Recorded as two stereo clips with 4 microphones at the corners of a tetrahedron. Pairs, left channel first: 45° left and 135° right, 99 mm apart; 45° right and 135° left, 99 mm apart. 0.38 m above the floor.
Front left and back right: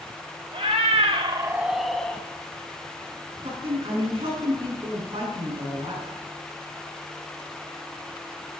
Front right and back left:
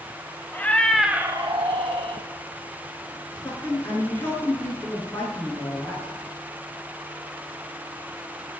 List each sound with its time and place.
0.5 s a cat meowing: 115° right, 1.1 m; by 2.2 s 120° left, 1.3 m
3.4 s a woman speaking: 115° right, 4 m